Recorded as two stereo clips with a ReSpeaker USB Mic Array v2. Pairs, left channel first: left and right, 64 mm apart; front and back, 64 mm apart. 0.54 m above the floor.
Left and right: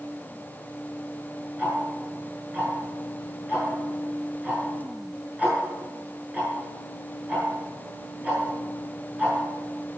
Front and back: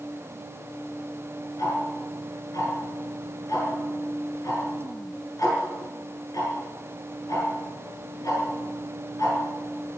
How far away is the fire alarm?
I don't hear a fire alarm.